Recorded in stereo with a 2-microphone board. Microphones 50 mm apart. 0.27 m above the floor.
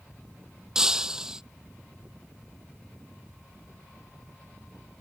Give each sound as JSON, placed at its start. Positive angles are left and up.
{"t": 0.8, "sound": "breaking glass", "side_deg": -10}